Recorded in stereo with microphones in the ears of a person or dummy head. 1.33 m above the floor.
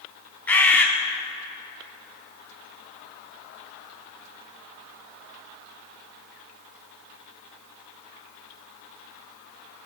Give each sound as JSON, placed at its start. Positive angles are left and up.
{"t": 0.5, "sound": "a bird", "side_deg": 5, "distance_m": 0.8}